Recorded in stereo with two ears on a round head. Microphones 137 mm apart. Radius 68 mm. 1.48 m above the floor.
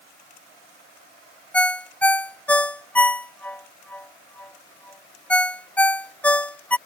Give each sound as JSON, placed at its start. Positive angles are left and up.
{"t": 1.5, "sound": "a ringtone", "side_deg": 10}